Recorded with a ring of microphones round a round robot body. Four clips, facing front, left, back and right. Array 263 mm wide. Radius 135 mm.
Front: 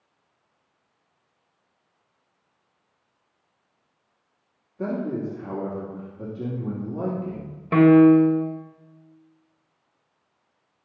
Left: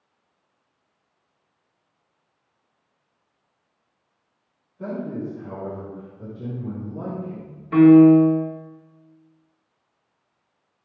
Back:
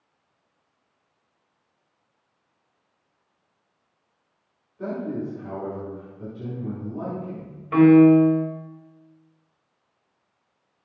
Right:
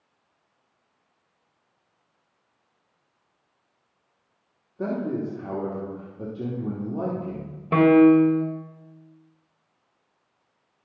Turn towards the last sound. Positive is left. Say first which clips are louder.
# left 4 dB, even
turn(degrees=-55)